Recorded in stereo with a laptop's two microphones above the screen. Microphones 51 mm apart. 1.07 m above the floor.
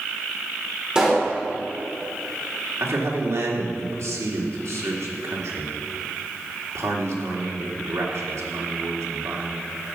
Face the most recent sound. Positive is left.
turn(degrees=-80)